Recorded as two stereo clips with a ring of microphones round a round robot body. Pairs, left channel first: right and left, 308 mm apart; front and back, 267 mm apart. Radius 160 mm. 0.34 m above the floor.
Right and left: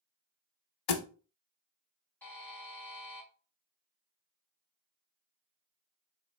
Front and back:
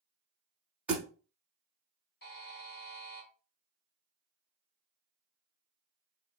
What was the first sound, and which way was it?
A thud, 95° right.